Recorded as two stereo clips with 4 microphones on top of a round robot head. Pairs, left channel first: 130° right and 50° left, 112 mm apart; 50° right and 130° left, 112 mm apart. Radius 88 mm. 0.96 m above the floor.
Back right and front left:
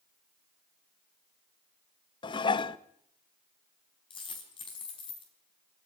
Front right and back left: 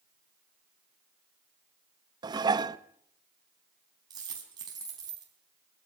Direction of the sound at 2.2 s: 175° right.